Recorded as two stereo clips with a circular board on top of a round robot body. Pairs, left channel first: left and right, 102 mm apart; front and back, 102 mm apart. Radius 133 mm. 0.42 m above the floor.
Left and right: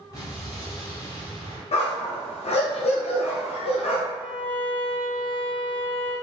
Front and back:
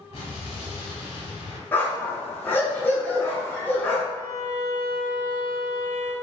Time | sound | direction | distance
0.1 | an explosion | 35° left | 0.7 m
1.7 | a dog barking | 75° left | 0.6 m
4.1 | a violin | 165° left | 1.2 m